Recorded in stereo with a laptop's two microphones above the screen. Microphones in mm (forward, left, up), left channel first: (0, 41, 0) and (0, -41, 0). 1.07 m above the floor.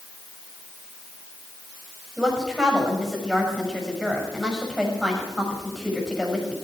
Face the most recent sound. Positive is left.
turn(degrees=0)  # may be behind; listen again after turning